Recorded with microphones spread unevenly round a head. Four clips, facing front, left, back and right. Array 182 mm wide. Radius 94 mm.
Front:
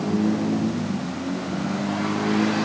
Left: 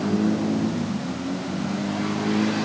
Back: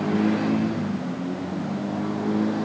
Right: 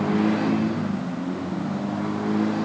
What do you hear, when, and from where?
Only background noise.